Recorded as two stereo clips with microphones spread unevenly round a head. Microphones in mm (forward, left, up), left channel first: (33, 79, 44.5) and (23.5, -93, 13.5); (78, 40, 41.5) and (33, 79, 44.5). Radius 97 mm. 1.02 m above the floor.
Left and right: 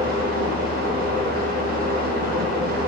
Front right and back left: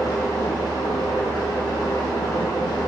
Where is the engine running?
55° right, 1.5 m.